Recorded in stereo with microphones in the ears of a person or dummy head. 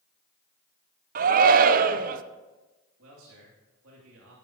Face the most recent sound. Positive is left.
turn(degrees=-70)  # may be behind; listen again after turning